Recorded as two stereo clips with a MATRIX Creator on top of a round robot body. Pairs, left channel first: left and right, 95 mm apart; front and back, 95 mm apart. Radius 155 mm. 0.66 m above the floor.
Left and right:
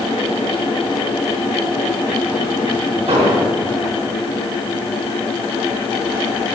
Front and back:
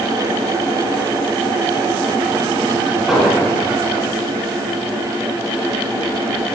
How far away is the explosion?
About 2.5 m.